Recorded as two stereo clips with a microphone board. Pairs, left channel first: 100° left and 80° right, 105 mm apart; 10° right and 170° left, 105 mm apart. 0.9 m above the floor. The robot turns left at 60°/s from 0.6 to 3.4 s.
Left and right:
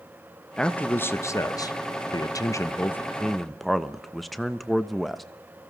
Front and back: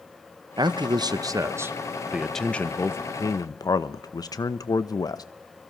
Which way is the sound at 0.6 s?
Straight behind.